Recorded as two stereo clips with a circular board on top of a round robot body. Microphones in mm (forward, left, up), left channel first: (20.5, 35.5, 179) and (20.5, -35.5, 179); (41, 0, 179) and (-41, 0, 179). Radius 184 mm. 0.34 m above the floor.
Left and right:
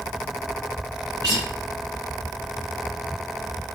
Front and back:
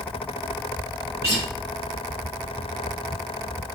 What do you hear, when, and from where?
1.2 s a guitar: 120° right, 3 m